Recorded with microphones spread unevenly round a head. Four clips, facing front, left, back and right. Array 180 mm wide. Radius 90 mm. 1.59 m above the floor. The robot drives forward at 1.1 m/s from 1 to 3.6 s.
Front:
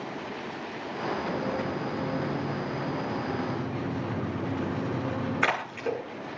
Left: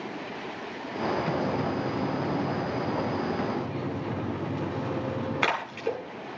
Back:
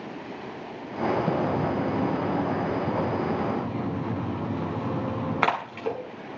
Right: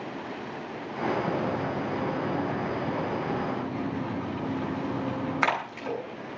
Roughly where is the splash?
Behind.